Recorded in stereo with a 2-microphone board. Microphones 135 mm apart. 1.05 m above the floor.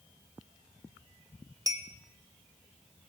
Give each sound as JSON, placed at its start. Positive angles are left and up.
{"t": 1.7, "sound": "a clink", "side_deg": -25, "distance_m": 0.9}